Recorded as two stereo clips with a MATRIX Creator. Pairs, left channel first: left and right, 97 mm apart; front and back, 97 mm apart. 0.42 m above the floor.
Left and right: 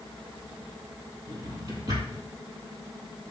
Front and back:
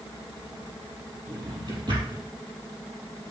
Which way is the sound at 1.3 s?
140° right.